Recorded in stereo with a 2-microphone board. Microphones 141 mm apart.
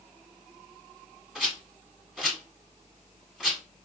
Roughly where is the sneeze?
I don't hear a sneeze.